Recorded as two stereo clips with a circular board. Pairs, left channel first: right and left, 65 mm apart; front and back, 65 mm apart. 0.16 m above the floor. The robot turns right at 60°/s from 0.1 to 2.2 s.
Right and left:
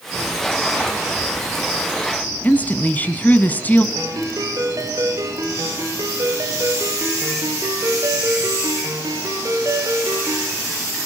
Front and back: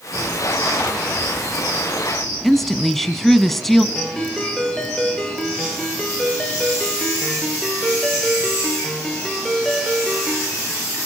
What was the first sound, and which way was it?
A woman speaking, 85° right.